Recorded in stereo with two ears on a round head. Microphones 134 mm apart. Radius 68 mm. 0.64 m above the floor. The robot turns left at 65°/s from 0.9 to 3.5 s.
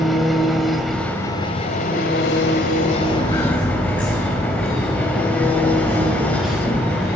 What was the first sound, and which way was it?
An engine running, straight behind.